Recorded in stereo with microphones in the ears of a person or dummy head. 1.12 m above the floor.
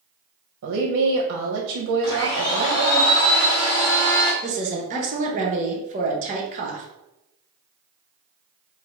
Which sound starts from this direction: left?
A blender, at 2.0 s.